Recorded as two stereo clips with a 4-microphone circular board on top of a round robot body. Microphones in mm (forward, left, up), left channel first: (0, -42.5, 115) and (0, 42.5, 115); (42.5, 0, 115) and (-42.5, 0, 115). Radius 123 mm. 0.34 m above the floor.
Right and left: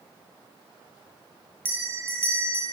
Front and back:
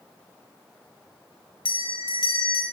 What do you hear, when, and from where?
1.6 s a bell: 25° left, 1.2 m